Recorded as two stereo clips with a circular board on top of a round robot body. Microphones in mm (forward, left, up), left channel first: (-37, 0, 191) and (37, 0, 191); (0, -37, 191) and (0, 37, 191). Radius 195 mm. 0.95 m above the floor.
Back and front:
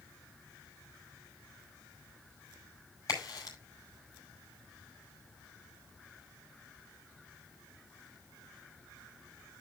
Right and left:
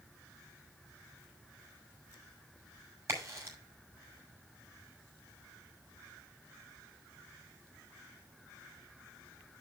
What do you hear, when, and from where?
3.1 s a crack: 140° left, 6 m